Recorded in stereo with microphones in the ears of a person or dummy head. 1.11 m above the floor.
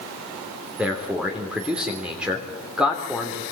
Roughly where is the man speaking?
Centre.